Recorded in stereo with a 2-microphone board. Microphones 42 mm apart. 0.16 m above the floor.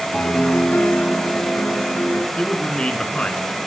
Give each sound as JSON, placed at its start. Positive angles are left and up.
{"t": 0.1, "sound": "a piano", "side_deg": 45, "distance_m": 2.0}
{"t": 2.4, "sound": "a man speaking", "side_deg": 30, "distance_m": 1.4}